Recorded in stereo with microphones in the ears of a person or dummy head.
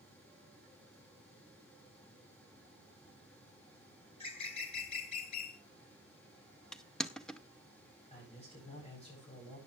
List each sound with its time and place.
4.1 s a bird: 40° left (ahead or behind), 2.5 m
6.7 s crushing: 5° left (ahead or behind), 0.7 m
8.1 s a man speaking: 25° left (ahead or behind), 8 m